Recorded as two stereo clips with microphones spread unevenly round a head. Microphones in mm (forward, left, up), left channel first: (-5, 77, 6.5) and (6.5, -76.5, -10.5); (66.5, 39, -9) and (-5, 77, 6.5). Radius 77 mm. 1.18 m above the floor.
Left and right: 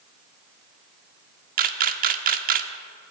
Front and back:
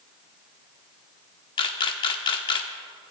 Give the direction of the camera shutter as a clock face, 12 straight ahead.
2 o'clock.